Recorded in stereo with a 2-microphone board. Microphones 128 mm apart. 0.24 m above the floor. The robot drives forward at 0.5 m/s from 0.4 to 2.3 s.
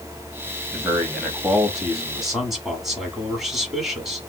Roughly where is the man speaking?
Centre.